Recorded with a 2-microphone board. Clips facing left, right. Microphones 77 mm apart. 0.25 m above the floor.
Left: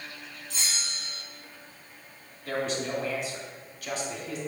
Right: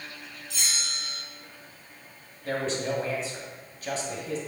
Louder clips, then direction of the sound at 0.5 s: Right 1 dB; 35° left (ahead or behind).